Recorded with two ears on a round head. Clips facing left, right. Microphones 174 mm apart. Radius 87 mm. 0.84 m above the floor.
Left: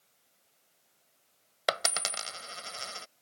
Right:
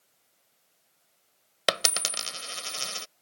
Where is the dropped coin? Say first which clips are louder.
Right 2 dB; 40° right (ahead or behind).